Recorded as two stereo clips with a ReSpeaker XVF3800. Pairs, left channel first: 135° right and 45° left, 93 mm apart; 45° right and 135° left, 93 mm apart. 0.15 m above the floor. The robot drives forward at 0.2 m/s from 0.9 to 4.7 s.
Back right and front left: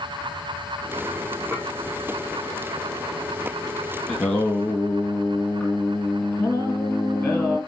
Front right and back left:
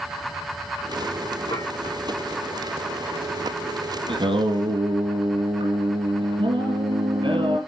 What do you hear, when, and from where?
1.5 s dishes clattering: 20° right, 4.5 m
4.1 s singing: 155° left, 2 m